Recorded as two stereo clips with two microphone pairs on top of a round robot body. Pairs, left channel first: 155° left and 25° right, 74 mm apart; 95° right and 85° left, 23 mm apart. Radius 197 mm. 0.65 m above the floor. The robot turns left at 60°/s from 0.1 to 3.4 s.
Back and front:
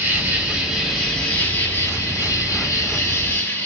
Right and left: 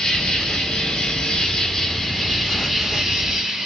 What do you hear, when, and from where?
0.0 s an insect: 50° right, 2 m; by 3.7 s 110° left, 2 m